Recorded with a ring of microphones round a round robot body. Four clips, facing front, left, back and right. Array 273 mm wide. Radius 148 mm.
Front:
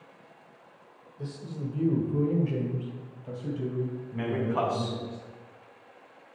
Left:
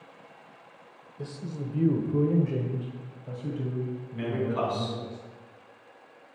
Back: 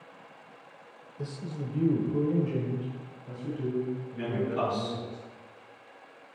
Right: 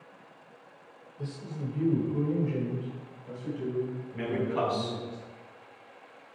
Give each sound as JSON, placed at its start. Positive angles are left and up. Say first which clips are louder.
{"t": 1.2, "sound": "a man speaking", "louder": "left 1 dB, even", "azimuth_deg": 140, "distance_m": 1.2}
{"t": 4.2, "sound": "a man speaking", "louder": "even, front 2 dB", "azimuth_deg": -15, "distance_m": 3.0}